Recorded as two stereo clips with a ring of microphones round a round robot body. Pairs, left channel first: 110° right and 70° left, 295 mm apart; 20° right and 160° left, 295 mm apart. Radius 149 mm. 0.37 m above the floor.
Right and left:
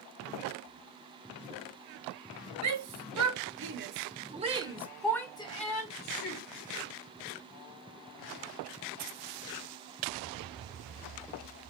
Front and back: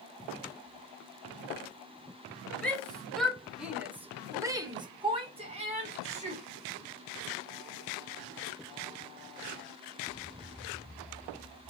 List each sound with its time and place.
2.6 s a shout: 65° left, 1.6 m; by 6.4 s 145° right, 1.3 m